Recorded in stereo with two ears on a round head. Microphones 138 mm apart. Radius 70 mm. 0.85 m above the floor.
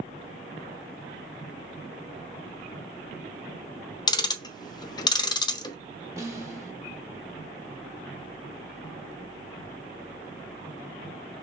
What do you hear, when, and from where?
4.1 s ticking: 25° left (ahead or behind), 0.5 m
6.2 s a snare drum: 20° right (ahead or behind), 1.1 m